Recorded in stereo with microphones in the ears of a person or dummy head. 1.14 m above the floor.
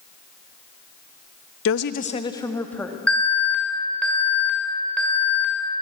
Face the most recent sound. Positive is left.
turn(degrees=5)  # may be behind; listen again after turning